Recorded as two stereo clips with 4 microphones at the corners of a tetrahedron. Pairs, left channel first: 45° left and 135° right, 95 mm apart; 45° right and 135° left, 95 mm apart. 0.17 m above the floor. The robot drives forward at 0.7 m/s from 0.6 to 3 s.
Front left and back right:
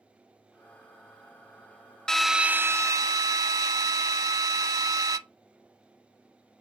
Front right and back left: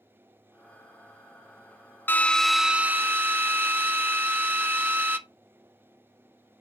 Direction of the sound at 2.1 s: 30° right.